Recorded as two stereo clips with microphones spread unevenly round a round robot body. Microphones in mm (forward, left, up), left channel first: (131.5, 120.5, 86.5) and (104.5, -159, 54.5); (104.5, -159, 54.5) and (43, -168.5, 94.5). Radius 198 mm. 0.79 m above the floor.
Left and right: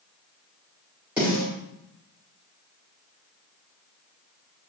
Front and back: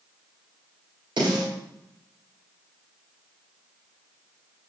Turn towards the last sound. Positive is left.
turn(degrees=180)